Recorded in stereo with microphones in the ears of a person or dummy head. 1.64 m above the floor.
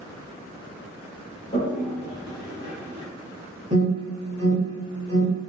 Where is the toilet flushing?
30° left (ahead or behind), 0.7 m.